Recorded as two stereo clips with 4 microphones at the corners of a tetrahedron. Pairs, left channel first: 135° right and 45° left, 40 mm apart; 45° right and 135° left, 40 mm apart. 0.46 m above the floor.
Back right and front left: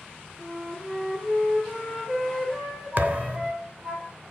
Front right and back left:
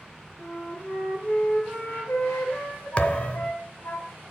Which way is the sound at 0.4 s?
35° right.